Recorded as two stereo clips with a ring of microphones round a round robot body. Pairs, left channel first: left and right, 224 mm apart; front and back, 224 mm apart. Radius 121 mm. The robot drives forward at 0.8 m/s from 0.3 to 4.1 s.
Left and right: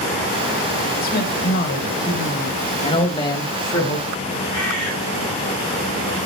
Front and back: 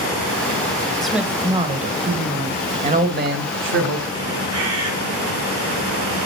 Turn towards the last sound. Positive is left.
turn(degrees=-175)